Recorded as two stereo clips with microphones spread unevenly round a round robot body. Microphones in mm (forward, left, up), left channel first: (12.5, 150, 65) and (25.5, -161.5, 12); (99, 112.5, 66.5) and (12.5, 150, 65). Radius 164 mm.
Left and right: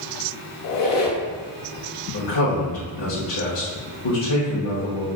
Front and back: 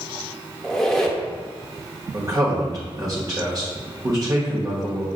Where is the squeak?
65° left, 0.8 m.